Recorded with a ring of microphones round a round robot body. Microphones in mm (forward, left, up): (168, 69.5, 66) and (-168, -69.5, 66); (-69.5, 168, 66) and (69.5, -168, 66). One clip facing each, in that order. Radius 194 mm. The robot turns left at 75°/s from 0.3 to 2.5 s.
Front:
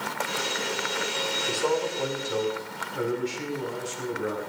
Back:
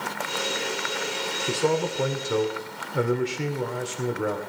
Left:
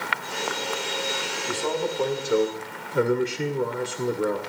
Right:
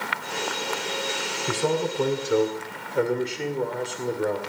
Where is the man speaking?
95° right, 2.5 m; by 4.4 s 170° right, 2.5 m.